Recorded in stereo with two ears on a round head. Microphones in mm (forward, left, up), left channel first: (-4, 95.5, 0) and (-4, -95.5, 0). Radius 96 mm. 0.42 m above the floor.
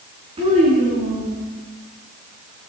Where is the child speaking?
25° right (ahead or behind), 3.5 m; by 1.4 s 35° right (ahead or behind), 4.5 m.